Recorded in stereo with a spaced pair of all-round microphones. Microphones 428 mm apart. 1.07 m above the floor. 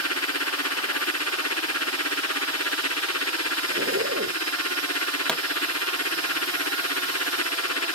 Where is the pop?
Centre (ahead or behind).